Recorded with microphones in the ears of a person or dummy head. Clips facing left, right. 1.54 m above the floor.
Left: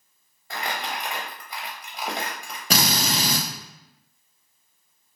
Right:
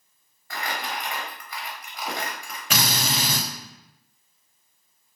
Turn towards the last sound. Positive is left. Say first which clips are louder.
# left 3 dB
turn(degrees=30)  # may be behind; listen again after turning